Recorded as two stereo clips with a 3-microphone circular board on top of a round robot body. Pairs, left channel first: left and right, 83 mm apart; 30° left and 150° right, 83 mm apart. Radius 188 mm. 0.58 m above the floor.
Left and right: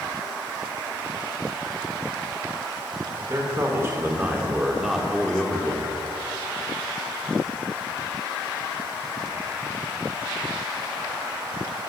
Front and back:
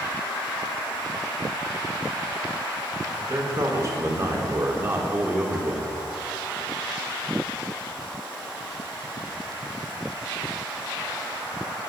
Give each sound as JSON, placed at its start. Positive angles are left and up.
{"t": 3.2, "sound": "a man speaking", "azimuth_deg": -120, "distance_m": 1.8}